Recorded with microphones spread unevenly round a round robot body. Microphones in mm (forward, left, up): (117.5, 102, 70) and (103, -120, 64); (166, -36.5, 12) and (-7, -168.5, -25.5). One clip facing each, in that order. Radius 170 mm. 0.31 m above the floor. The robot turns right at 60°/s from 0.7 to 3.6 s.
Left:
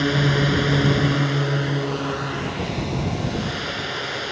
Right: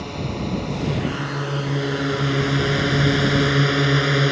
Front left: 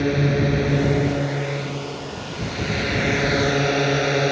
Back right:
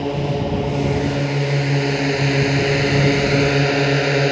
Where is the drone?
110° left; by 4.3 s 75° right.